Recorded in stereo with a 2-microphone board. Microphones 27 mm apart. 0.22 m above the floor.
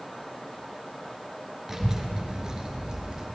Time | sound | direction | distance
1.7 | a child speaking | 15° right (ahead or behind) | 2.5 m